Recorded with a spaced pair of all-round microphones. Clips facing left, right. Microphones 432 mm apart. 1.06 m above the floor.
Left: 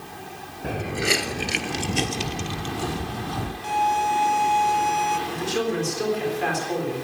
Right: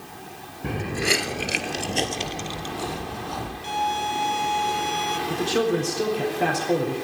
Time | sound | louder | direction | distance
0.6 | footsteps | even | 15° right (ahead or behind) | 1.1 m
3.6 | a violin | left 4 dB | 70° left (ahead or behind) | 1.1 m
5.3 | a man speaking | right 4 dB | 75° right (ahead or behind) | 3.5 m